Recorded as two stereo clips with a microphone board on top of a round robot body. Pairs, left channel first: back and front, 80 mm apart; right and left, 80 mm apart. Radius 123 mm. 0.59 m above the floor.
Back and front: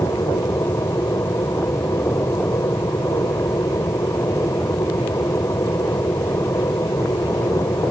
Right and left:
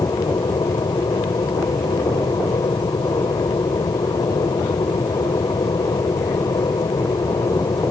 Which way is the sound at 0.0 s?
125° right.